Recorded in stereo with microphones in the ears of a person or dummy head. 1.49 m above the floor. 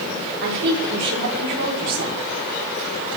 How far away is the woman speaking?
About 5 m.